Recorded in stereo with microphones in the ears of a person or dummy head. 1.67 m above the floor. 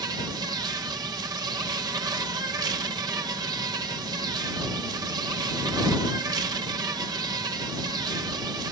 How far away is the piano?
I don't hear a piano.